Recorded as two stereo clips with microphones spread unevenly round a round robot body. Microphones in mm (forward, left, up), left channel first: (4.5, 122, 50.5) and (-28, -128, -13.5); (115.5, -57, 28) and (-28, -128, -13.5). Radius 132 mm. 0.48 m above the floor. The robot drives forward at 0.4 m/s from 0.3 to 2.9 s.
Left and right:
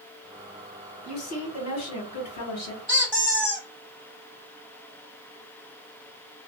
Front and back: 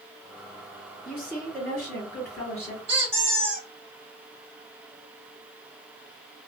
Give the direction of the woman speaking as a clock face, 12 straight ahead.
10 o'clock.